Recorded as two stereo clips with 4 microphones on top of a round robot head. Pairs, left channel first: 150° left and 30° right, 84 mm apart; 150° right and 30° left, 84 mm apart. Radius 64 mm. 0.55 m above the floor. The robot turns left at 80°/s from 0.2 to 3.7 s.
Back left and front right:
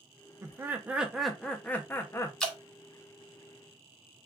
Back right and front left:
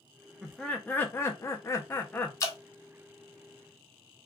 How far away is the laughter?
About 0.7 m.